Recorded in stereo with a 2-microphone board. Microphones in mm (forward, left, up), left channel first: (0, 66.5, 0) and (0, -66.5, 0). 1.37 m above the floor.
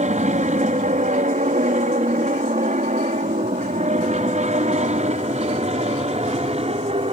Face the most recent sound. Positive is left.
turn(degrees=-50)  # may be behind; listen again after turning